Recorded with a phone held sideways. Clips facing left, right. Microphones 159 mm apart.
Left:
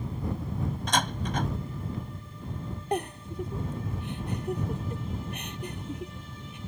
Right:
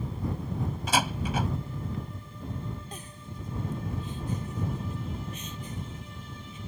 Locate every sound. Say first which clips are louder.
0.9 s a door slam: right 2 dB; 5° right (ahead or behind)
2.9 s a giggle: left 13 dB; 65° left (ahead or behind)